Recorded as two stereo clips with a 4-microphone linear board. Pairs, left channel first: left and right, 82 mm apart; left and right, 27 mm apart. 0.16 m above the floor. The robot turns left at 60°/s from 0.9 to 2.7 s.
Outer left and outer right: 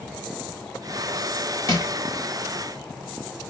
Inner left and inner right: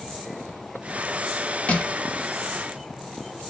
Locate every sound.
1.7 s crushing: 45° left (ahead or behind), 1.0 m; by 1.9 s 40° left (ahead or behind), 1.0 m